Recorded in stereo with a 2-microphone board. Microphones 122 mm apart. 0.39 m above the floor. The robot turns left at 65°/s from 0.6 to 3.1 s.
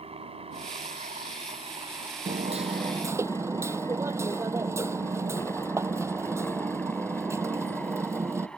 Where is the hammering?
105° right; by 8.5 s 160° right.